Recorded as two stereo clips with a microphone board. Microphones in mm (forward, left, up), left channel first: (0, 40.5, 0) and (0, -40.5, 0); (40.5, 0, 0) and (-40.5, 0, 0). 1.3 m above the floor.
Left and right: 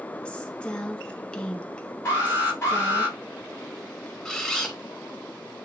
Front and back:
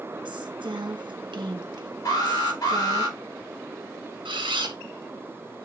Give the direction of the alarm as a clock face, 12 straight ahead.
11 o'clock.